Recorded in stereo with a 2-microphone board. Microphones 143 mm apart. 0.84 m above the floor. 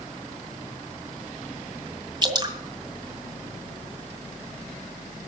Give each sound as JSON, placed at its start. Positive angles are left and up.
{"t": 2.2, "sound": "dripping", "side_deg": -30, "distance_m": 2.0}